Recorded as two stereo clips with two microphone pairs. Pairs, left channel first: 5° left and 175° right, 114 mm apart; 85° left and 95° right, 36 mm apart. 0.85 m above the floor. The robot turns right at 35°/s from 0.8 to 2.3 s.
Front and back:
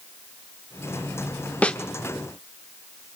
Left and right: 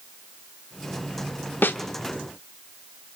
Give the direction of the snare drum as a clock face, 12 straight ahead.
9 o'clock.